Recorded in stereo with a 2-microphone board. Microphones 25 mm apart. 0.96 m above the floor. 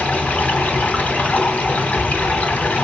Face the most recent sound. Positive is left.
turn(degrees=75)  # may be behind; listen again after turning